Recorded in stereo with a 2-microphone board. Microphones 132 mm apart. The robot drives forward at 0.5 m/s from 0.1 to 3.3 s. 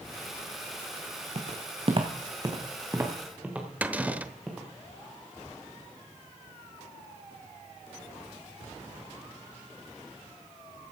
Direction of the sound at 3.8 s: 10° right (ahead or behind).